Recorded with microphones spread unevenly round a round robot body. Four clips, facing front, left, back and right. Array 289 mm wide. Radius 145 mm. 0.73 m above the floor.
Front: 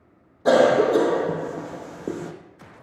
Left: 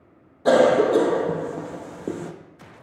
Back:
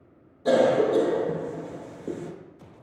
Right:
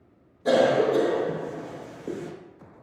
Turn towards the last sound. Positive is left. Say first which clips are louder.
# left 4 dB, front 4 dB
turn(degrees=55)